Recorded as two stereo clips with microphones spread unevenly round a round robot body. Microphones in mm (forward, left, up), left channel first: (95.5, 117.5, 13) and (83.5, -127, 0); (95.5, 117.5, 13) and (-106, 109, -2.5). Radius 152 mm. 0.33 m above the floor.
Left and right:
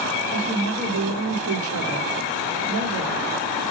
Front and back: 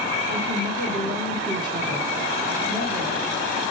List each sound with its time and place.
0.3 s a woman speaking: 65° right, 3.5 m